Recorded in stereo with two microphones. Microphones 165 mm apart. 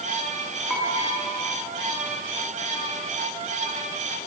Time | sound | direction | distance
0.7 | dishes clattering | centre (ahead or behind) | 8.5 m